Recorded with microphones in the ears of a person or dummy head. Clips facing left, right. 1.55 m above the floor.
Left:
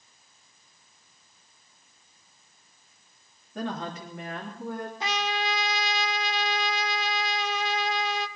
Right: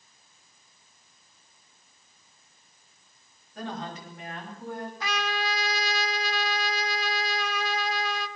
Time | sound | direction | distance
3.5 | a woman speaking | 50° left (ahead or behind) | 3.5 m
5.0 | a trumpet | 25° left (ahead or behind) | 1.0 m